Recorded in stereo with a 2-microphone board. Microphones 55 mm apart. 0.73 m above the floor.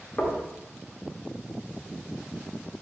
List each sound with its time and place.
0.2 s knocking: 20° left (ahead or behind), 0.7 m